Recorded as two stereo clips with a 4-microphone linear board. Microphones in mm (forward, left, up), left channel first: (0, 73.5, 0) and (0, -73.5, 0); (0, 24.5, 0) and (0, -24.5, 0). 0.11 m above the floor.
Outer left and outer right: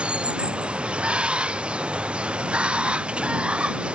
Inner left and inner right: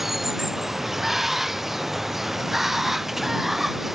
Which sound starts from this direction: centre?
Running water, at 0.0 s.